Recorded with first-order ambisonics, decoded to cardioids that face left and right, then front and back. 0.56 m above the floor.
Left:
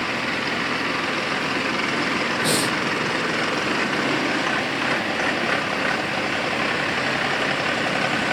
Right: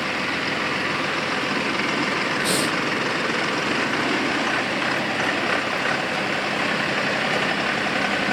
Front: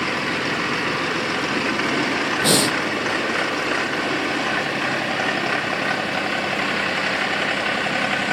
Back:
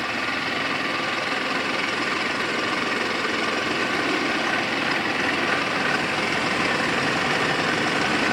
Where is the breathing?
5° left.